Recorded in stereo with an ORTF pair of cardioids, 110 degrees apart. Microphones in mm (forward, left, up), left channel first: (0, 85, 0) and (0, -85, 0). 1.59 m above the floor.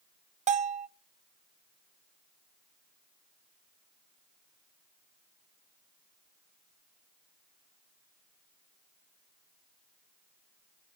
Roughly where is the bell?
Ahead right.